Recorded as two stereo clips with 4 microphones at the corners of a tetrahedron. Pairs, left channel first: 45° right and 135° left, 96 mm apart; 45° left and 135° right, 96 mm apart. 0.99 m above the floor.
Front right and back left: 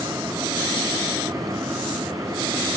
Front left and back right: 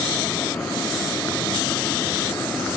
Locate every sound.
Only background noise.